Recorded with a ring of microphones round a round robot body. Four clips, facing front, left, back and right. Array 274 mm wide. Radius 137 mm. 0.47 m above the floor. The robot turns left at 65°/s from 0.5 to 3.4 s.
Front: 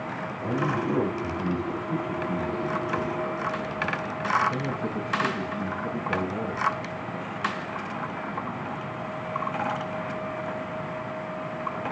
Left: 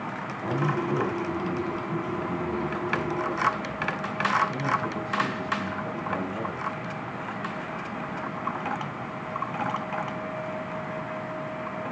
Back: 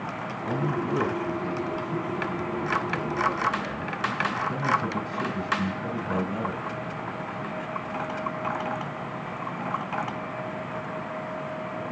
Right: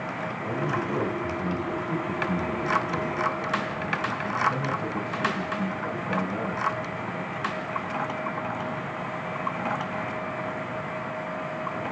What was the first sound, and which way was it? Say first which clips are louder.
A man speaking: left 2 dB, front 1 dB; 35° left.